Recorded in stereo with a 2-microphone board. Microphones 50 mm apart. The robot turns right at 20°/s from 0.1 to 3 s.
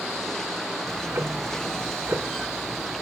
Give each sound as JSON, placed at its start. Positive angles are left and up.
{"t": 0.9, "sound": "ticking", "azimuth_deg": -75, "distance_m": 1.1}